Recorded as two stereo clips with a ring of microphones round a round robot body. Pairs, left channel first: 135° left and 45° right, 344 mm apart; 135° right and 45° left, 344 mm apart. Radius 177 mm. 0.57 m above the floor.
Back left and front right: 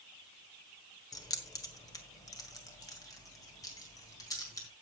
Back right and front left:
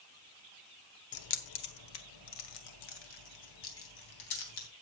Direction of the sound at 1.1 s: 145° right.